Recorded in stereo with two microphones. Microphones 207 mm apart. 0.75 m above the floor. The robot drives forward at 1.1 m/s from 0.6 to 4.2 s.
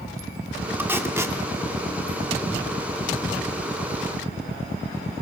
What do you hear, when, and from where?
0.8 s tape being pulled: 10° right (ahead or behind), 2 m; by 1.4 s 15° right (ahead or behind), 1.7 m